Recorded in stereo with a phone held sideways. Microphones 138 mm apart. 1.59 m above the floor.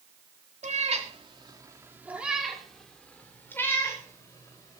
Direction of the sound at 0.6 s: 55° right (ahead or behind).